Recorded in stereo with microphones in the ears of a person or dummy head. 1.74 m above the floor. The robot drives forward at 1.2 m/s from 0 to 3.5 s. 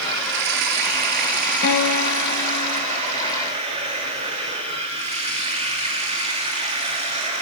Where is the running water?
65° right (ahead or behind), 3.5 m; by 7.4 s 30° right (ahead or behind), 6 m.